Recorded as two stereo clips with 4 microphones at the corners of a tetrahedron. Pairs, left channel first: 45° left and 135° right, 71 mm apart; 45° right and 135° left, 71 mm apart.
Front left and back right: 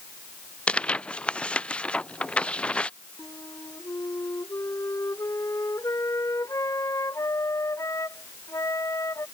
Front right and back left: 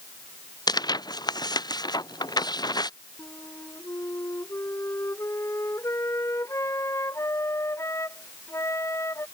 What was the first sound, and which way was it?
Tearing paper, 30° right.